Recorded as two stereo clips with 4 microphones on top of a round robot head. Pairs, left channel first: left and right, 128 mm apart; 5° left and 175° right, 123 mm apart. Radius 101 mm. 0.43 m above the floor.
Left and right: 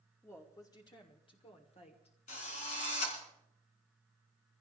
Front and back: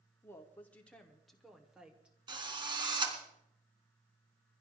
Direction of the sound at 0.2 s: 40° left.